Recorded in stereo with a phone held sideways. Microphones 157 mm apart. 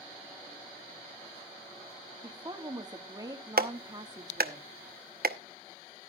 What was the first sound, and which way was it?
A woman speaking, 25° right (ahead or behind).